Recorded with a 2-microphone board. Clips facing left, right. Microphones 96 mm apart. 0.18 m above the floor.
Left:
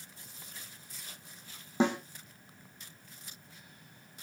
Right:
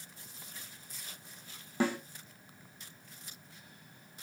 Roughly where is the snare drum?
Left.